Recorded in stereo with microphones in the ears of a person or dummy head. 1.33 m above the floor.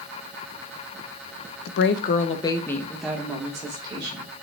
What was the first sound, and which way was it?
A woman speaking, 70° left (ahead or behind).